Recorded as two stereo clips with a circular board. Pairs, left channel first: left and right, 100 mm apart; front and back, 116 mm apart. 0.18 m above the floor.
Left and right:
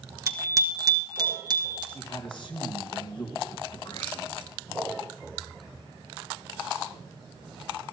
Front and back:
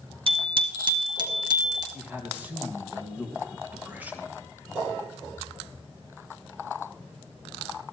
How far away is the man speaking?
About 3 m.